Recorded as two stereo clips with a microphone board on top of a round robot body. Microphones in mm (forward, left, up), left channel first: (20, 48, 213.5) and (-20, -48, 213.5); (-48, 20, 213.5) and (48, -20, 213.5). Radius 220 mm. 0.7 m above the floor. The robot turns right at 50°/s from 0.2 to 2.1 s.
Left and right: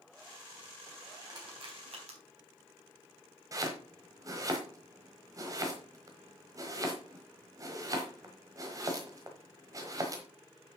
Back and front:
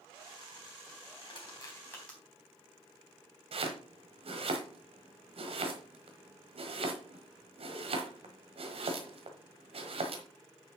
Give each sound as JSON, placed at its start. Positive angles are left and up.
{"t": 1.2, "sound": "crushing", "azimuth_deg": -165, "distance_m": 3.5}
{"t": 3.5, "sound": "chopping", "azimuth_deg": -55, "distance_m": 1.1}